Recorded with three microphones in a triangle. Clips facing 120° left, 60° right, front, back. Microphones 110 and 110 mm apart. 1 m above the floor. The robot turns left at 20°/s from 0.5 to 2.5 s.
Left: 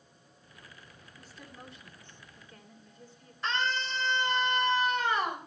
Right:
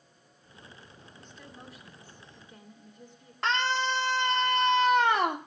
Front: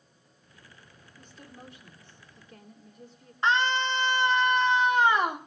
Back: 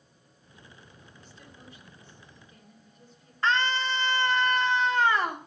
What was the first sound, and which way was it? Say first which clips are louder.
A woman speaking: even, front 6 dB; 40° left.